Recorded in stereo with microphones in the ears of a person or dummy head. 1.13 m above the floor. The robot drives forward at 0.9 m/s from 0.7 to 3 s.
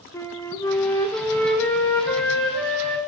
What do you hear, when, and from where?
0.1 s a flute: 10° left (ahead or behind), 1.1 m; by 3.0 s 5° left (ahead or behind), 3 m